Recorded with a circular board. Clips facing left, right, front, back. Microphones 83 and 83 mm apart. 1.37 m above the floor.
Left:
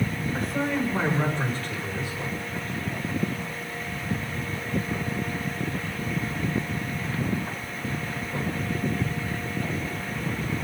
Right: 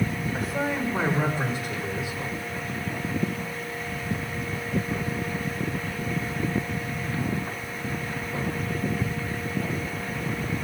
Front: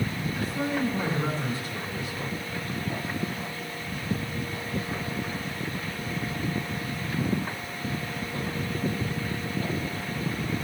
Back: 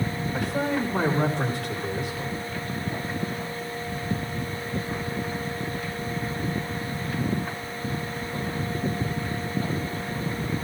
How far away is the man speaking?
About 6 m.